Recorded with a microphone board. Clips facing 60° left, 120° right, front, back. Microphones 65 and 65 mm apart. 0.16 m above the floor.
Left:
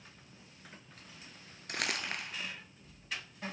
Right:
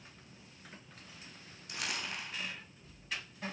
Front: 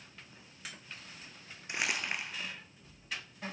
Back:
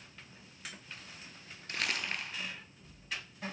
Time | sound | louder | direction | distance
1.7 | crumpling | left 3 dB, front 1 dB | 75° left | 1.2 m